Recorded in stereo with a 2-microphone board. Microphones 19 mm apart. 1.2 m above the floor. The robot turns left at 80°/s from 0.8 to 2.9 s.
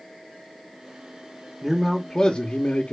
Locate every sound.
1.6 s a man speaking: 170° right, 0.8 m; by 2.9 s 85° left, 0.8 m